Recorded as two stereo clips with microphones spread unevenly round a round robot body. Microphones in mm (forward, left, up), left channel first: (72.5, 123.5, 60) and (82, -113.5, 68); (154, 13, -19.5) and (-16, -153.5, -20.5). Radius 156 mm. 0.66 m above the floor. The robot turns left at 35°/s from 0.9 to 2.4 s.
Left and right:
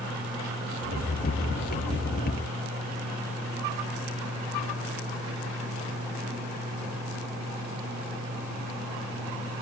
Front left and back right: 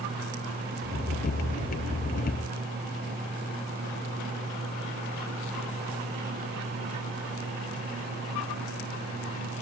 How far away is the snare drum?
No snare drum in this recording.